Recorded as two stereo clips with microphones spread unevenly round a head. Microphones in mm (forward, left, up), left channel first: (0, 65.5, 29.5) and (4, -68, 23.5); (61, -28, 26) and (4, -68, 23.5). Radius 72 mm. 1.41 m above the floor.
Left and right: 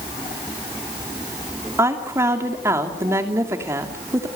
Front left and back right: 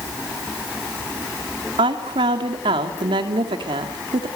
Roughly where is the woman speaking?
Behind.